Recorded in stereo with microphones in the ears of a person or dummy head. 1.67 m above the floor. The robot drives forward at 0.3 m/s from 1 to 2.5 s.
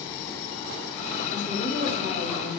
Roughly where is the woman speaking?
Right.